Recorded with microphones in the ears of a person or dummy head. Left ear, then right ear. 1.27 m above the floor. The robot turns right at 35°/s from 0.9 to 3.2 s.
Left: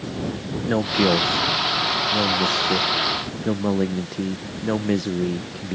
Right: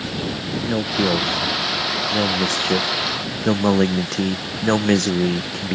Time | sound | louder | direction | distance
0.7 | a man speaking | left 1 dB | 155° left | ?